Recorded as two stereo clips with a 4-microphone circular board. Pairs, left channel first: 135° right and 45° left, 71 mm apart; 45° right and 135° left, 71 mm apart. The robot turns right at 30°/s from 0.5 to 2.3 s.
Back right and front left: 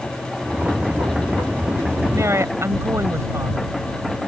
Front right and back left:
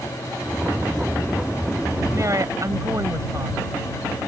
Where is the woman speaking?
90° left; by 3.7 s 95° left.